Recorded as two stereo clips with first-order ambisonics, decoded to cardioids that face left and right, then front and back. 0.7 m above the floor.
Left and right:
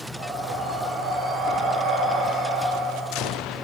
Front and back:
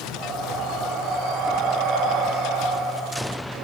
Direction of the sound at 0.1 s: 150° right.